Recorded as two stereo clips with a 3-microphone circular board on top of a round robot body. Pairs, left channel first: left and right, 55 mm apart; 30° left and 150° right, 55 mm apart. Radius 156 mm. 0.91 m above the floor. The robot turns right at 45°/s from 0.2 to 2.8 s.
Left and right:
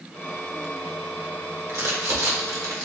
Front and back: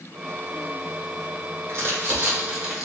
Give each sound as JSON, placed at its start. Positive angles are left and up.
{"t": 1.7, "sound": "crumpling", "azimuth_deg": -115, "distance_m": 1.7}